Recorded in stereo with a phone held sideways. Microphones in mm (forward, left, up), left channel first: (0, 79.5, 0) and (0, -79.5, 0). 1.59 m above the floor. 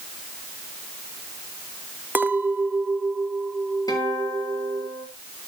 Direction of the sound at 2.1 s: 10° right (ahead or behind).